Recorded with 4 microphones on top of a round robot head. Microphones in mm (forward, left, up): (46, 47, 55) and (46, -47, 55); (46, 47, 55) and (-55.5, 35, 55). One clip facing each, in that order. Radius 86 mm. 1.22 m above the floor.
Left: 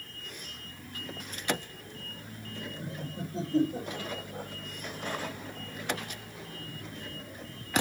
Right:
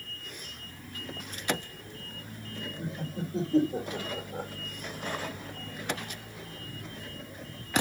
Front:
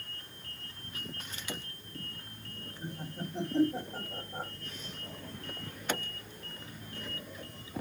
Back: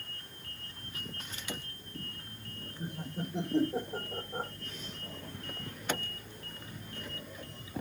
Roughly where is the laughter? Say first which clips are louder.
Right 5 dB, back 2 dB; right.